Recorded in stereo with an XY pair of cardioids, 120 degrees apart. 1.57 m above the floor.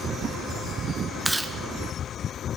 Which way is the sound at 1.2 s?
5° right.